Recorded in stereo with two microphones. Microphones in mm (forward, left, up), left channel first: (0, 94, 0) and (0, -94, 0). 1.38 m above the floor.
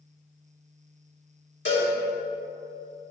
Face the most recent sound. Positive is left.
turn(degrees=85)